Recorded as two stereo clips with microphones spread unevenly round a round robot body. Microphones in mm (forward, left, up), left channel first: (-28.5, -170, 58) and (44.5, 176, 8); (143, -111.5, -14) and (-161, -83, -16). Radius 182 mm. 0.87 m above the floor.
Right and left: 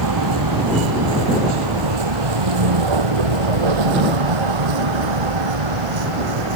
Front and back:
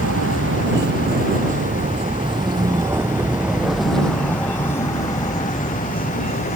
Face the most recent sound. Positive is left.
turn(degrees=70)